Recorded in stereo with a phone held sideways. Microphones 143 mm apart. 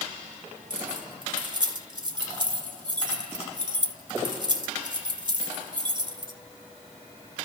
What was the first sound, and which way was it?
Keys jangling, 35° right (ahead or behind).